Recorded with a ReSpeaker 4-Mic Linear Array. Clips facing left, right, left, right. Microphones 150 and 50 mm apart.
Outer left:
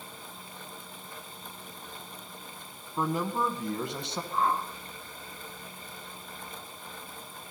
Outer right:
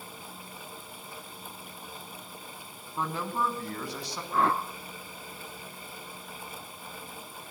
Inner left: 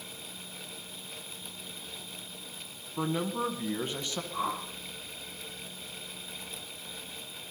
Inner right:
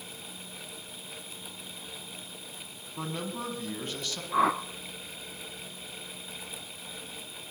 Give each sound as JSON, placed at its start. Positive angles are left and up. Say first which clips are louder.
{"t": 3.0, "sound": "a man speaking", "louder": "outer left 2 dB, inner left 5 dB", "side_deg": 10, "distance_m": 1.4}
{"t": 4.3, "sound": "a whoosh", "louder": "outer right 2 dB, inner right 9 dB", "side_deg": -80, "distance_m": 0.6}